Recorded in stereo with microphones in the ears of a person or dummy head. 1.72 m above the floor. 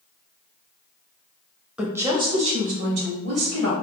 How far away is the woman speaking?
About 0.6 m.